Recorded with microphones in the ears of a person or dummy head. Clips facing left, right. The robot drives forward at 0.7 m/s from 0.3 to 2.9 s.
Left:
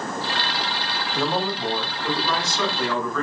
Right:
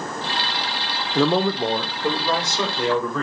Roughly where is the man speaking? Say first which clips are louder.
Right 6 dB; right.